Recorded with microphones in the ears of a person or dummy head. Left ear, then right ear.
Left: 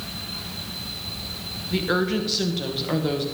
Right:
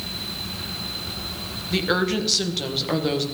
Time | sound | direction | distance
1.7 | a woman speaking | 20° right (ahead or behind) | 1.7 m